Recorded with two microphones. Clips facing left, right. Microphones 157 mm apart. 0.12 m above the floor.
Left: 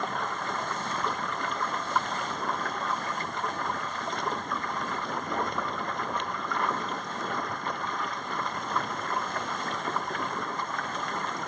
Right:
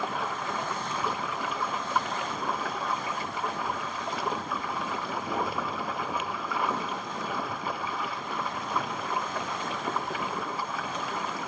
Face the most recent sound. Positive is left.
turn(degrees=-5)  # may be behind; listen again after turning